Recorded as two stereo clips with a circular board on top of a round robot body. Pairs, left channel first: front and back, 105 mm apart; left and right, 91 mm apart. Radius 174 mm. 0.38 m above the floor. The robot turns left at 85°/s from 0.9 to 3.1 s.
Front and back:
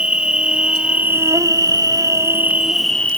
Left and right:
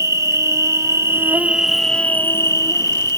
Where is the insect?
105° right, 1.8 m; by 3.2 s 65° left, 1.8 m.